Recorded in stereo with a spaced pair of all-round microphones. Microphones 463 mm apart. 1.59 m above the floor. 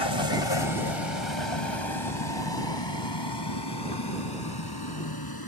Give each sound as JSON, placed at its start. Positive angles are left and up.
{"t": 0.0, "sound": "a vehicle", "side_deg": 70}